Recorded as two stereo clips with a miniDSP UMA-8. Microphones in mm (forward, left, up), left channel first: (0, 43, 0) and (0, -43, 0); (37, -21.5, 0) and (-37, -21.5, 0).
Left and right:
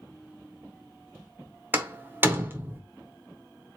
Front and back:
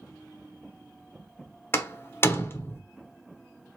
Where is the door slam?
40° right, 0.9 m.